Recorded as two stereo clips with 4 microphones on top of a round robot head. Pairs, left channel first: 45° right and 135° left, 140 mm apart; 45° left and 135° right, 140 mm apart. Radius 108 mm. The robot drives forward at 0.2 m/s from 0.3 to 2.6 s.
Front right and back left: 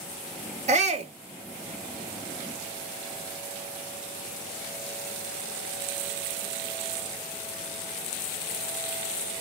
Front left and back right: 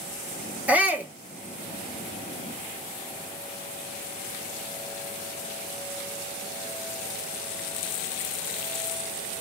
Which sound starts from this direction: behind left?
A shout, at 0.7 s.